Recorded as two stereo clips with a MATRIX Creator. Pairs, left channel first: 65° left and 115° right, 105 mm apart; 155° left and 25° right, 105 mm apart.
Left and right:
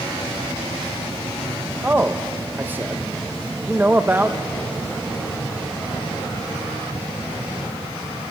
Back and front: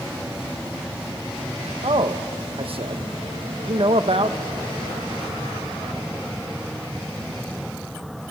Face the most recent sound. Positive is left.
turn(degrees=-45)